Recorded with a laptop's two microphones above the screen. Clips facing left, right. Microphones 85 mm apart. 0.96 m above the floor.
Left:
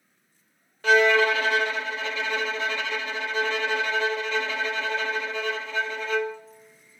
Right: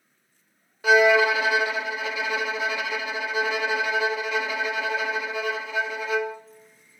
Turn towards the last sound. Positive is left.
turn(degrees=-10)  # may be behind; listen again after turning